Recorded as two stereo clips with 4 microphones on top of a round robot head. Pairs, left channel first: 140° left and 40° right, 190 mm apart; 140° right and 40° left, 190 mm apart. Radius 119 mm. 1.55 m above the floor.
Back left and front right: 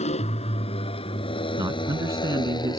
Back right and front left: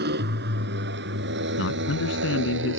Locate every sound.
0.0 s a motorcycle: 80° left; by 2.8 s 70° left
1.6 s a man speaking: 115° right